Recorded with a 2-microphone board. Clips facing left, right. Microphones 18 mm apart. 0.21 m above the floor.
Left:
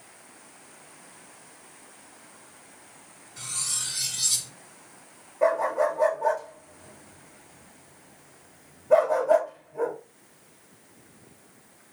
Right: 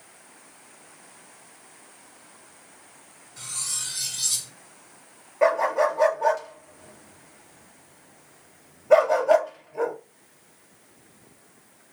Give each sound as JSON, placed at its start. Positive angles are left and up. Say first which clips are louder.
{"t": 3.4, "sound": "cutlery clinking", "louder": "even", "side_deg": 5, "distance_m": 1.3}
{"t": 5.4, "sound": "a dog barking", "louder": "right 2 dB", "side_deg": -75, "distance_m": 1.1}